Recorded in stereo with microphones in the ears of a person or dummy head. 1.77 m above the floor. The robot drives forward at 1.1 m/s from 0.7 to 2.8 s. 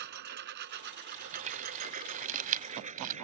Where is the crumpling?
40° right (ahead or behind); by 3.1 s 45° right (ahead or behind).